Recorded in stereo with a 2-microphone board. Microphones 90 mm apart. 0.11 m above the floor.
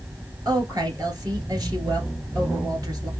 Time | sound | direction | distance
0.5 | a woman speaking | 45° right (ahead or behind) | 2.5 m